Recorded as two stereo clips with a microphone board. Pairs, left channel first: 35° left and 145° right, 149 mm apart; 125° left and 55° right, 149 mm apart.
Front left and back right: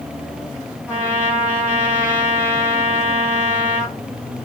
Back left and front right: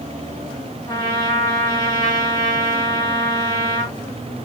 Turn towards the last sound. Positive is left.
turn(degrees=140)